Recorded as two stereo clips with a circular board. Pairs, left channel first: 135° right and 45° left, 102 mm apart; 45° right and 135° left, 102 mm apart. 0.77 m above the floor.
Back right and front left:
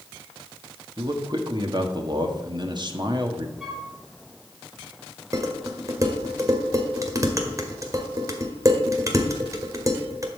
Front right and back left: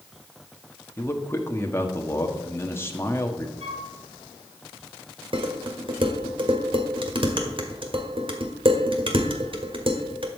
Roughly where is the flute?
Behind left.